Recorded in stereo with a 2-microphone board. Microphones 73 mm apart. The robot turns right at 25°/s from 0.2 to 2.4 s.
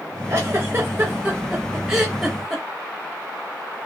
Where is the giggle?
40° right (ahead or behind), 0.8 m; by 2.6 s centre (ahead or behind), 0.8 m.